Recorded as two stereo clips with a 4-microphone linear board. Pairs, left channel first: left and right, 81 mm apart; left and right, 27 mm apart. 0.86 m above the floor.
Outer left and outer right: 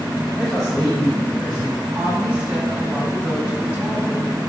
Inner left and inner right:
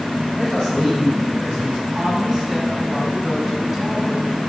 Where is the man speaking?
10° left (ahead or behind), 3 m.